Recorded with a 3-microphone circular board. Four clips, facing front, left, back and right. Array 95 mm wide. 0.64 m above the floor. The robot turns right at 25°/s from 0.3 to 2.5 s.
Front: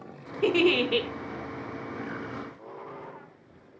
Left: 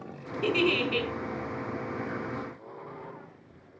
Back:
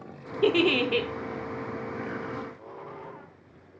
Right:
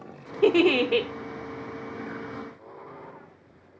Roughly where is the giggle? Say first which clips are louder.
Right 7 dB, even; right.